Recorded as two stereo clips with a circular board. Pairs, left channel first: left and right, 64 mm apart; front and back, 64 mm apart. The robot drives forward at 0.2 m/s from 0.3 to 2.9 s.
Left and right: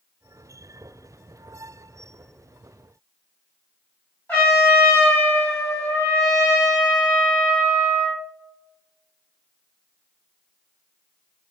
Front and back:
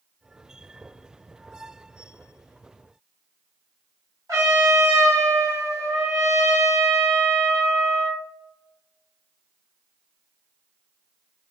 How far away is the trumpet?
About 1.5 m.